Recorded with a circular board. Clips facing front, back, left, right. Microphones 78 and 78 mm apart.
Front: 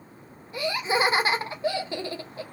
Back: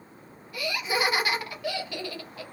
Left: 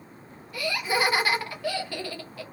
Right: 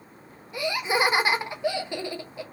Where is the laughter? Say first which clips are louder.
Front 3 dB, right 2 dB; 35° right, 0.6 m.